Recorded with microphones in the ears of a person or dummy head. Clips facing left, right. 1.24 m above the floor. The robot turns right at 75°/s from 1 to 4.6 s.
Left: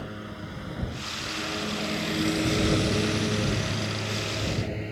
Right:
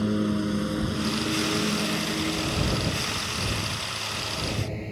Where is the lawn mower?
70° right (ahead or behind); by 4.9 s 10° left (ahead or behind).